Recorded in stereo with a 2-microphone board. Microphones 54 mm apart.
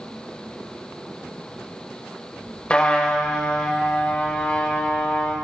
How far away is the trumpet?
About 1.7 m.